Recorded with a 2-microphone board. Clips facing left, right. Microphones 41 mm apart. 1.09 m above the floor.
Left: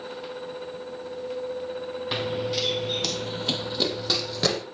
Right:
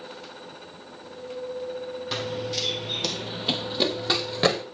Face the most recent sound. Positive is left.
turn(degrees=-25)  # may be behind; listen again after turning